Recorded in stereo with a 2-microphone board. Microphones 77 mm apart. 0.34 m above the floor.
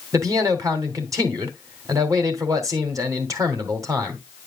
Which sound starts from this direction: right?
A man speaking, at 0.1 s.